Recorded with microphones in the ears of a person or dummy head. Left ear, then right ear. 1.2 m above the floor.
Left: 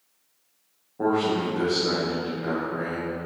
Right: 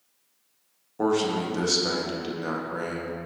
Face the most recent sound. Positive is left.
turn(degrees=-85)